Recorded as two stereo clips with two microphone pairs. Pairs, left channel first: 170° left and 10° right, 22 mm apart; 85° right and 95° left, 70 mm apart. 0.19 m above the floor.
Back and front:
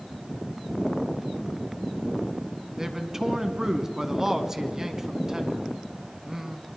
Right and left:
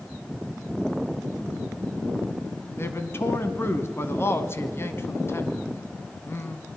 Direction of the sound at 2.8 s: 65° right.